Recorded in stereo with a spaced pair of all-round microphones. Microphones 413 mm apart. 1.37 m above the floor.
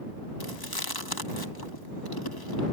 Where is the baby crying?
No baby crying in this recording.